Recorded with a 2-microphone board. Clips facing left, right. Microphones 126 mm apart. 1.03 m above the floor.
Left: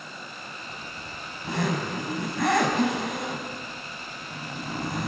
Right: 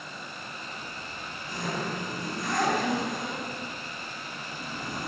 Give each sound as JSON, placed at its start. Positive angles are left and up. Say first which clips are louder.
{"t": 0.7, "sound": "a zipper", "louder": "left 1 dB", "side_deg": 80, "distance_m": 5.5}